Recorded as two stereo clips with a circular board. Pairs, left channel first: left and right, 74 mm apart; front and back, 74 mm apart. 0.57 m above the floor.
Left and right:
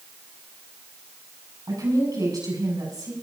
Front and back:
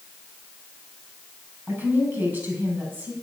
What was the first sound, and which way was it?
A woman speaking, 120° right.